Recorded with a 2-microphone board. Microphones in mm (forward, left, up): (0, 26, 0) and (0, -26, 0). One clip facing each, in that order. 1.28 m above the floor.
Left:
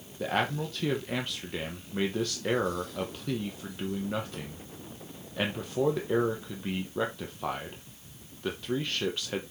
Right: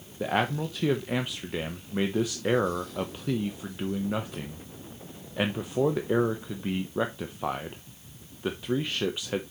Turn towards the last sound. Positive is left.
turn(degrees=-10)  # may be behind; listen again after turning